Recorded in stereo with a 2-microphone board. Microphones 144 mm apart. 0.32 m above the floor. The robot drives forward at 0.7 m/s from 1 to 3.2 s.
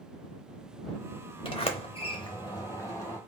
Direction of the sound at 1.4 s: 40° left (ahead or behind).